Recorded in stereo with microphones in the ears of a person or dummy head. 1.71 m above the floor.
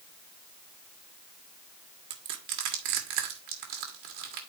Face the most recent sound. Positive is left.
turn(degrees=-50)  # may be behind; listen again after turning